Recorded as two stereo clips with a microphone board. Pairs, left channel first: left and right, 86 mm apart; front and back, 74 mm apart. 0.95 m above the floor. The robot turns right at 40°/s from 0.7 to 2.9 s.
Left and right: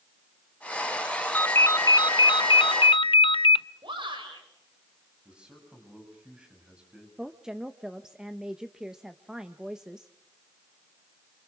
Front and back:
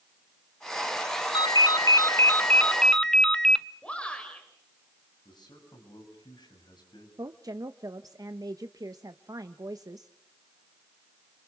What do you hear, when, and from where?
1.3 s a ringtone: 20° left, 0.5 m; by 3.7 s 85° left, 0.5 m
3.8 s a shout: 75° right, 5 m
5.2 s a man speaking: 10° right, 7 m
7.2 s a woman speaking: 170° right, 0.8 m